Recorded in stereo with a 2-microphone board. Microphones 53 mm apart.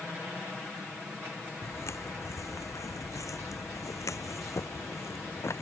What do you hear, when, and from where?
1.6 s footsteps: 60° left (ahead or behind)